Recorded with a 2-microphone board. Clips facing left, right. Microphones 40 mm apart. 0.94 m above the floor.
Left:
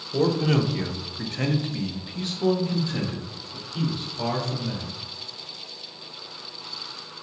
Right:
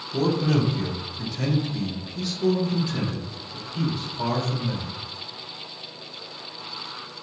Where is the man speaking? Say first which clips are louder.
Left 1 dB; 35° left (ahead or behind), 0.9 m; by 4.9 s 25° left (ahead or behind), 2.5 m.